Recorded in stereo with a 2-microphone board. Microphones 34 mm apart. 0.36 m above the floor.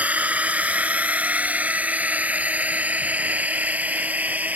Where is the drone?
45° right (ahead or behind); by 4.6 s 50° right (ahead or behind).